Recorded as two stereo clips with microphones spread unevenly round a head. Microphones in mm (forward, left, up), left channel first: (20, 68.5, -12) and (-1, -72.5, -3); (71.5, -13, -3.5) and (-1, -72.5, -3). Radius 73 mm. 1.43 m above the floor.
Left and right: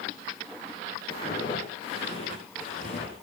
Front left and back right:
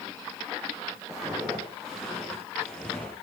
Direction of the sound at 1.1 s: 145° left.